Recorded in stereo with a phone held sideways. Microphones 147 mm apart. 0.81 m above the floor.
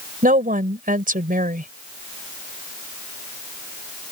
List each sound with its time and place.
0.2 s a woman speaking: 70° right (ahead or behind)